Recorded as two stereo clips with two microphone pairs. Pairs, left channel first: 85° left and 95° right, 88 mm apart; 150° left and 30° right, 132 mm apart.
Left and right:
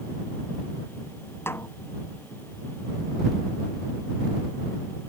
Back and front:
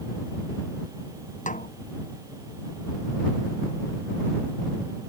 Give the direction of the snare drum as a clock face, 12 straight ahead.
7 o'clock.